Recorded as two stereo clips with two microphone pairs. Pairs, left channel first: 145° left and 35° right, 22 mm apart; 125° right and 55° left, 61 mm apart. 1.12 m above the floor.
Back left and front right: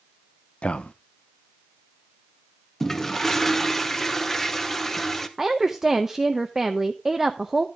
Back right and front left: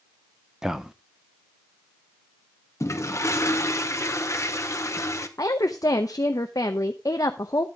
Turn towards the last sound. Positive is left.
turn(degrees=-105)